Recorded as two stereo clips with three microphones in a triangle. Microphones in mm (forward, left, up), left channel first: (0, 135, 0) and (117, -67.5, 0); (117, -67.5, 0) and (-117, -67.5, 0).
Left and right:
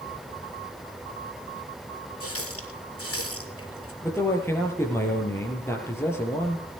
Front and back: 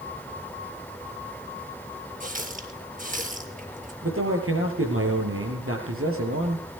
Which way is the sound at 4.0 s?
160° right.